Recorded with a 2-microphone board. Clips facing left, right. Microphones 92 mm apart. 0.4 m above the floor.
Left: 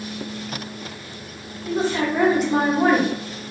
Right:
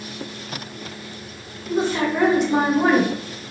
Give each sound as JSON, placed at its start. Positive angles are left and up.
{"t": 1.7, "sound": "a woman speaking", "side_deg": 0, "distance_m": 1.8}